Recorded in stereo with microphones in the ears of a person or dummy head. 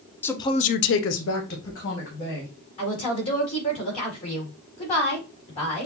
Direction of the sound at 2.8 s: 30° left (ahead or behind).